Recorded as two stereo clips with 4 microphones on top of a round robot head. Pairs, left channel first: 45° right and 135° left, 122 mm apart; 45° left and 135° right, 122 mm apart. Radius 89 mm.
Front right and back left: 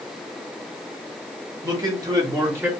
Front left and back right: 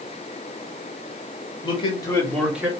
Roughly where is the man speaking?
Left.